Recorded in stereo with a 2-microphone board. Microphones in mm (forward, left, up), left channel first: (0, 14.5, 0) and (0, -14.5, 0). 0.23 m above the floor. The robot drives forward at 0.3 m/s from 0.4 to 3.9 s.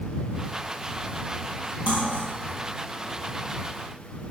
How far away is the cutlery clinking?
About 4 m.